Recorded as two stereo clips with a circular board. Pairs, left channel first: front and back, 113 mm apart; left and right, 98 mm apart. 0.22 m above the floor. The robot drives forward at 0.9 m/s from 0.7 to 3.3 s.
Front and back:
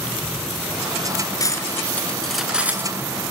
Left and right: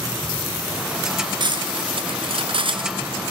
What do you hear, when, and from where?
1.4 s cutlery clinking: 55° right, 1.6 m; by 3.1 s 120° right, 1.5 m